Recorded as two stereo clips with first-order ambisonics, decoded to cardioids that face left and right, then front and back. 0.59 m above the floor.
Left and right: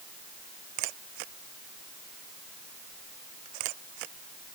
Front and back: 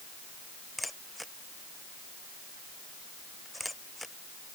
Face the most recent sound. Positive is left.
turn(degrees=-85)